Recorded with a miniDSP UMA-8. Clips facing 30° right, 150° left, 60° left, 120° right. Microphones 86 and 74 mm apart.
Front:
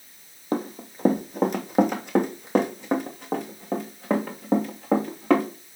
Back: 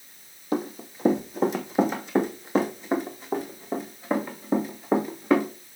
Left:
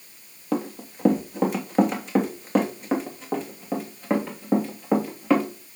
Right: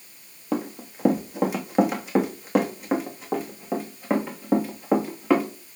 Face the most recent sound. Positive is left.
turn(degrees=-35)